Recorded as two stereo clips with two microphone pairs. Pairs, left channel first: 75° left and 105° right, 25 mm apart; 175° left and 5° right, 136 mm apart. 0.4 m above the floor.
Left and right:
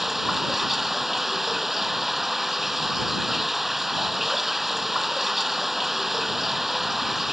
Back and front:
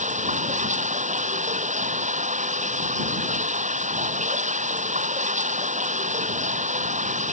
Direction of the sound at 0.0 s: 25° right.